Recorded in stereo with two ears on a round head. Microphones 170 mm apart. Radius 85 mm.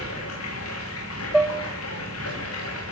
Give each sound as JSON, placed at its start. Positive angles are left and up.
{"t": 0.0, "sound": "running water", "side_deg": 85, "distance_m": 10.0}
{"t": 1.3, "sound": "dishes clattering", "side_deg": -5, "distance_m": 1.4}